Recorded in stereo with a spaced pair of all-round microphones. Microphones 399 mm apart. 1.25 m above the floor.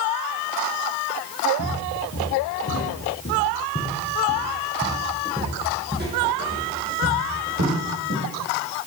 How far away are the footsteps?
About 2 m.